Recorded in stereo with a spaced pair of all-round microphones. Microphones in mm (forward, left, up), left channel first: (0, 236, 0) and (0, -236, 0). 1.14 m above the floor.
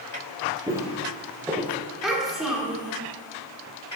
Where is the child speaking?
Centre (ahead or behind), 2.5 m.